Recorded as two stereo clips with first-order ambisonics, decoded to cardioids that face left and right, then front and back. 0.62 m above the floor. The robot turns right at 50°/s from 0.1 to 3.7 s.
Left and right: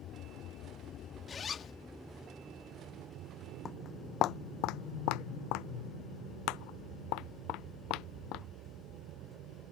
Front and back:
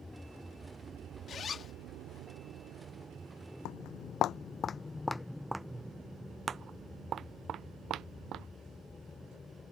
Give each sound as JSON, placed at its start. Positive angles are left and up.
{"t": 0.0, "sound": "an aircraft", "azimuth_deg": 80}
{"t": 1.3, "sound": "a zipper", "azimuth_deg": 35}
{"t": 3.6, "sound": "footsteps", "azimuth_deg": 25}